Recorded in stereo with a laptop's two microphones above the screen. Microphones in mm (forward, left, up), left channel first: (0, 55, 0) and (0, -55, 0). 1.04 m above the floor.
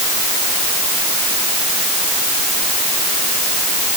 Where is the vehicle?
I don't hear a vehicle.